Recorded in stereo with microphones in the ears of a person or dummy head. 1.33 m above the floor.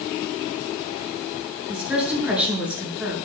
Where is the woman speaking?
5° right (ahead or behind), 9 m.